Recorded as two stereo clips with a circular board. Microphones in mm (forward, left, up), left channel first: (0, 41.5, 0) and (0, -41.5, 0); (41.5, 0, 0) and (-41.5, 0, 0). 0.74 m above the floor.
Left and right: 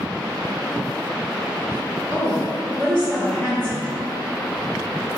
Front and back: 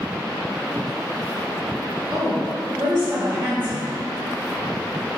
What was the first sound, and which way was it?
A woman speaking, 175° left.